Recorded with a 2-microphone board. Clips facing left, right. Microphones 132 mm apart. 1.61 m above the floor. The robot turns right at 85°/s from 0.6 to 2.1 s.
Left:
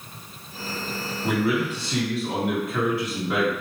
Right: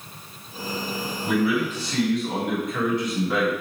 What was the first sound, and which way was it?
A man speaking, 105° left.